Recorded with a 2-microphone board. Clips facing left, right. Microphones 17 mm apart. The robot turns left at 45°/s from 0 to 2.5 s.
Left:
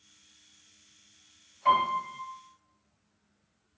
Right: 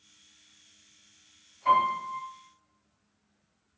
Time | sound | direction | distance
1.6 | a piano | 40° left (ahead or behind) | 1.5 m